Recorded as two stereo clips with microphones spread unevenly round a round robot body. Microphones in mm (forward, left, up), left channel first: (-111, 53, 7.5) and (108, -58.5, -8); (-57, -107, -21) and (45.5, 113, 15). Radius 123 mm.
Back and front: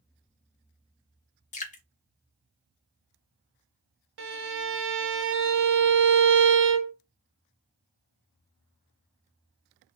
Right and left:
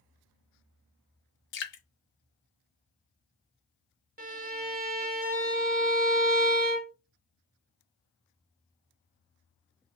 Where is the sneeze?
No sneeze in this recording.